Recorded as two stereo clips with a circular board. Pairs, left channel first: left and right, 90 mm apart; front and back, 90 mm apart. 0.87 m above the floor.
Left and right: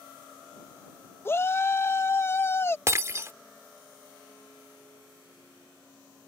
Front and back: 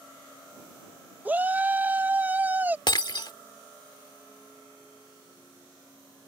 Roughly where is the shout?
Behind left.